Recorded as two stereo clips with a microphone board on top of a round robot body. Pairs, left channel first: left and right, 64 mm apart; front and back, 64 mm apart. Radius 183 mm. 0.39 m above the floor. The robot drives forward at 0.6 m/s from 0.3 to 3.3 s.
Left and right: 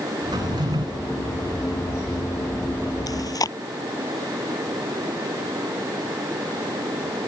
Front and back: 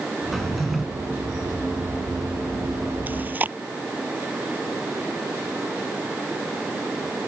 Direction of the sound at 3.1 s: 115° left.